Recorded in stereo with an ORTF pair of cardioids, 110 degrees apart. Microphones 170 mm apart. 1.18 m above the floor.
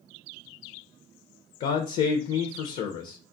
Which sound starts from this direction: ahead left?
A man speaking, at 1.6 s.